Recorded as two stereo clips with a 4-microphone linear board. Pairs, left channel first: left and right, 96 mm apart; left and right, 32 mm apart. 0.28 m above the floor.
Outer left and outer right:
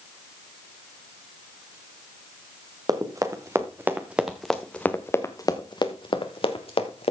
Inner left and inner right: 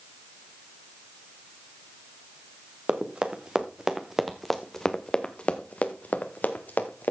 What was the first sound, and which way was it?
Running footsteps, 35° right (ahead or behind).